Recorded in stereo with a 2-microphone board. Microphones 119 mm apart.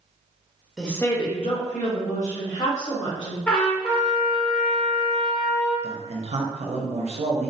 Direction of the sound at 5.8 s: 55° right (ahead or behind).